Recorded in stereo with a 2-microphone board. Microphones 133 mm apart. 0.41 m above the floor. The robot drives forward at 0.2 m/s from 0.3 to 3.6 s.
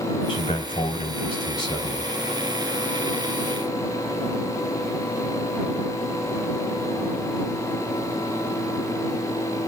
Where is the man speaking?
35° left (ahead or behind), 2.5 m; by 2.1 s 30° left (ahead or behind), 2.5 m.